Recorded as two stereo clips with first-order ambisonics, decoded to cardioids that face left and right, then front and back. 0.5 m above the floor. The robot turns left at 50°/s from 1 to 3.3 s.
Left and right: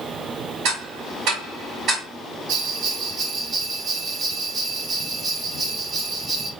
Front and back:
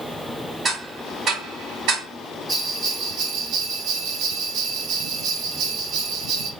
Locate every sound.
0.7 s ticking: 100° right, 1.9 m; by 2.0 s 155° right, 1.9 m
2.5 s a bell: 115° right, 0.5 m; by 6.5 s 155° right, 0.5 m